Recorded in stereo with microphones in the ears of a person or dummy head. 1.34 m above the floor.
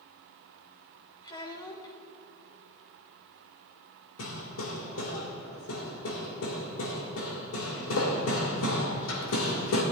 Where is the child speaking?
25° left (ahead or behind), 1.8 m.